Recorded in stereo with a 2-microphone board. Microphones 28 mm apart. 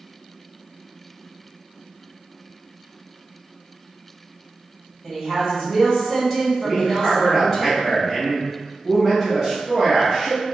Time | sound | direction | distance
5.0 | a woman speaking | centre (ahead or behind) | 2.0 m
6.6 | a man speaking | 20° right (ahead or behind) | 1.4 m